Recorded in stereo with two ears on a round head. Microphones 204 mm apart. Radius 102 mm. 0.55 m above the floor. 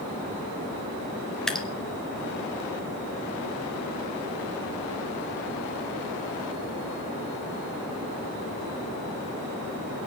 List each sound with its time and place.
1.5 s dripping: 5° left (ahead or behind), 1.2 m